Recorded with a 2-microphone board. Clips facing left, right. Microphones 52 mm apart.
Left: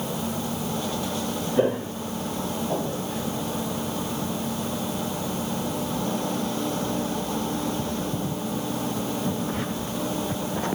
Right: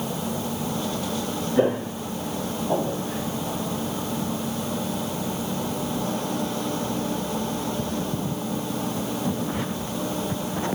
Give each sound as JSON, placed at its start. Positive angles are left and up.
{"t": 1.6, "sound": "footsteps", "side_deg": -10, "distance_m": 1.6}